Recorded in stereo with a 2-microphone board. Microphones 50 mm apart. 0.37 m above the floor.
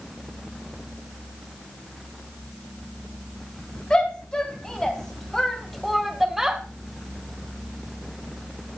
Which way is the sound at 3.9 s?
20° left (ahead or behind).